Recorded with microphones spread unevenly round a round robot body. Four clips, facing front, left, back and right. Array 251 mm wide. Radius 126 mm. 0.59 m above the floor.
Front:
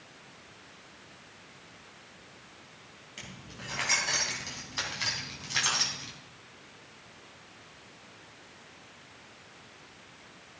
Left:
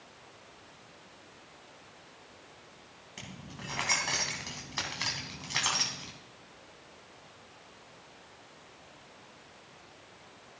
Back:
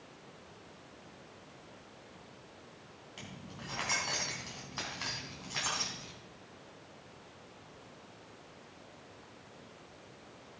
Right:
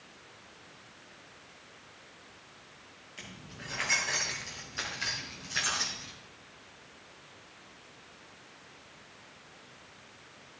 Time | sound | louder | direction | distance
3.2 | keys jangling | left 2 dB, front 1 dB | 100° left | 3.5 m